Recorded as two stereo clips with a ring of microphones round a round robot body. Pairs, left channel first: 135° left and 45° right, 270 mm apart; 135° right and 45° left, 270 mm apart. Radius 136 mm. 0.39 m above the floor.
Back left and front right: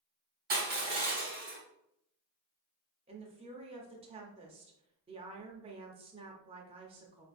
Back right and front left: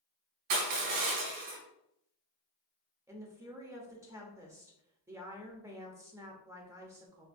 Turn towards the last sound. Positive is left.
turn(degrees=-15)